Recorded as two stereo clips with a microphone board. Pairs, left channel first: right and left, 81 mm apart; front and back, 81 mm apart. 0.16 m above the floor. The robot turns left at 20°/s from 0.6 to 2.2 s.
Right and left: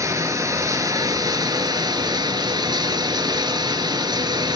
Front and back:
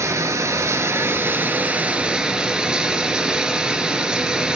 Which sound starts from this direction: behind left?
Running water, at 0.0 s.